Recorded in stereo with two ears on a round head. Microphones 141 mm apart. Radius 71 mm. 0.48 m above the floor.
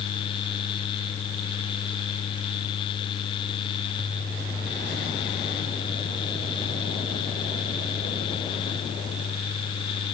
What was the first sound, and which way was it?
Only background noise.